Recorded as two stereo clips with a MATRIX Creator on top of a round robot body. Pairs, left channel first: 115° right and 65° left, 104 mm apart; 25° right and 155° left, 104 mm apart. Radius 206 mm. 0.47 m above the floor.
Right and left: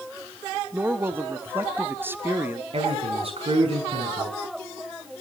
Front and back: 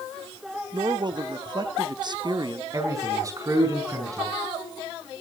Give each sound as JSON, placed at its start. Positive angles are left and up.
{"t": 0.7, "sound": "a man speaking", "azimuth_deg": 130, "distance_m": 1.4}
{"t": 2.7, "sound": "a man speaking", "azimuth_deg": 95, "distance_m": 5.5}